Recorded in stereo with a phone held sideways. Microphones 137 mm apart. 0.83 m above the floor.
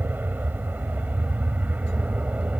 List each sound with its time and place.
0.0 s an aircraft: 15° right (ahead or behind); by 2.6 s 10° right (ahead or behind)